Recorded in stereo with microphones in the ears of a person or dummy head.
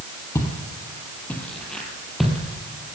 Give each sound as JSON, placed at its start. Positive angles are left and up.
{"t": 0.3, "sound": "footsteps", "side_deg": 15, "distance_m": 3.5}